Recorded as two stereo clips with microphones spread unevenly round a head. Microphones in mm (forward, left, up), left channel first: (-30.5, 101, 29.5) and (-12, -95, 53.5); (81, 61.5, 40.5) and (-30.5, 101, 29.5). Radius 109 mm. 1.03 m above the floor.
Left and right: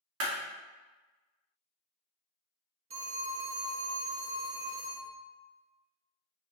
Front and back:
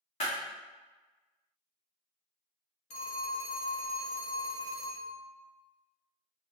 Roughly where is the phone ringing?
Ahead right.